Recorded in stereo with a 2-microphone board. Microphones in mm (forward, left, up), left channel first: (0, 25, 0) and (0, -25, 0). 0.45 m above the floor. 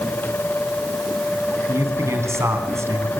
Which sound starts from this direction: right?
A man speaking, at 1.7 s.